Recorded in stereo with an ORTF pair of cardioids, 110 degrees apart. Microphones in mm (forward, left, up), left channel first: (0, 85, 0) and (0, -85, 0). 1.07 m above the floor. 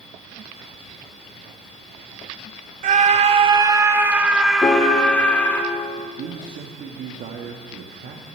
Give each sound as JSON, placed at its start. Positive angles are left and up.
{"t": 2.8, "sound": "a scream", "azimuth_deg": -55, "distance_m": 1.6}
{"t": 4.6, "sound": "a piano", "azimuth_deg": 25, "distance_m": 2.5}
{"t": 6.2, "sound": "a man speaking", "azimuth_deg": -60, "distance_m": 1.5}